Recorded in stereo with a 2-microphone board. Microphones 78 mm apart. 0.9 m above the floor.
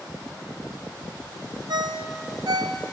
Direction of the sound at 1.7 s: 60° right (ahead or behind).